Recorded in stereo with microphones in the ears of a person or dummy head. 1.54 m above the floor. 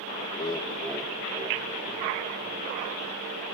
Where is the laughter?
40° left (ahead or behind), 0.9 m; by 2.8 s 40° right (ahead or behind), 2.5 m.